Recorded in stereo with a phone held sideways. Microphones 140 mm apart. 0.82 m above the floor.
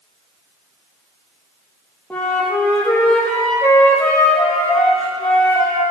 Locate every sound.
2.1 s a flute: 10° left (ahead or behind), 3.5 m